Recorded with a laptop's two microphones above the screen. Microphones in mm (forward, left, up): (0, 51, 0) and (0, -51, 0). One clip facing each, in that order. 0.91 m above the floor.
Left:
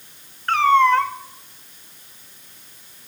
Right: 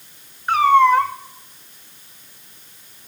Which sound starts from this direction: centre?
A cat meowing, at 0.5 s.